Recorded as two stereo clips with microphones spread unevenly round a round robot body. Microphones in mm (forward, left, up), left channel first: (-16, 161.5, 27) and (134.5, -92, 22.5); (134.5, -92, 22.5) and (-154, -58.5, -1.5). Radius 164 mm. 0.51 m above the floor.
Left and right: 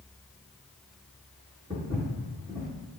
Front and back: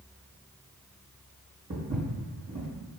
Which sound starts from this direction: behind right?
Footsteps, at 1.7 s.